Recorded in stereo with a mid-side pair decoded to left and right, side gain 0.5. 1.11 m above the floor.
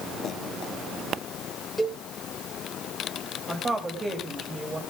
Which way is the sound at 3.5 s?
25° right.